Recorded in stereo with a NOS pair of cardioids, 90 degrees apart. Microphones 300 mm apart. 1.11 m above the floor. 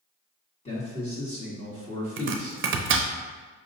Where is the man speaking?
20° left, 1.5 m.